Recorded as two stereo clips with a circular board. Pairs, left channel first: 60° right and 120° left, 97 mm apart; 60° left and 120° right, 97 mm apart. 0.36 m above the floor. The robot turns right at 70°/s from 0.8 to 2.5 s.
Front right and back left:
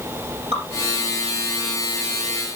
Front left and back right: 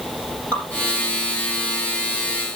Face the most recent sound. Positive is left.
turn(degrees=-115)